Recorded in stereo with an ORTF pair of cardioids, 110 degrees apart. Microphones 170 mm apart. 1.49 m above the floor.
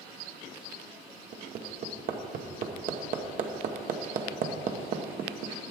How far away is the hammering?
About 0.9 m.